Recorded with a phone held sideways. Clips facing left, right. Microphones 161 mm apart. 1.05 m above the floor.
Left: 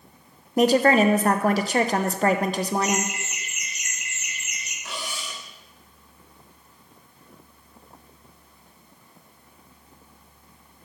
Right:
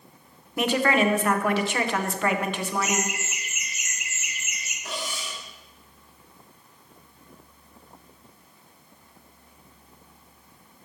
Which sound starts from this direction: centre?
Laughter, at 2.8 s.